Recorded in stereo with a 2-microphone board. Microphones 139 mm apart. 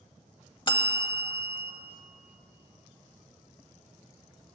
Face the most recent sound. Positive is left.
turn(degrees=35)  # may be behind; listen again after turning